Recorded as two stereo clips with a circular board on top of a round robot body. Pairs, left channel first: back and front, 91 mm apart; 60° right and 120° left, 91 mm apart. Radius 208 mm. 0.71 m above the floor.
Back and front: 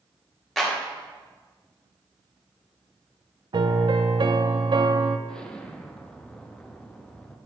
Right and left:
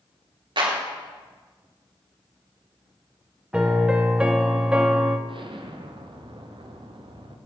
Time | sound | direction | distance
0.6 | a clap | 95° left | 2.5 m
3.5 | a piano | 40° left | 0.6 m
5.3 | an explosion | 100° left | 1.1 m